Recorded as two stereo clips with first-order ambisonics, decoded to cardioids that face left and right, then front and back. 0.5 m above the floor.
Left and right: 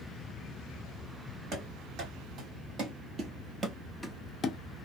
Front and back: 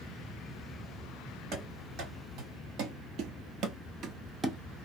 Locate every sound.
1.5 s running footsteps: 140° right, 2.0 m; by 4.6 s 105° left, 0.5 m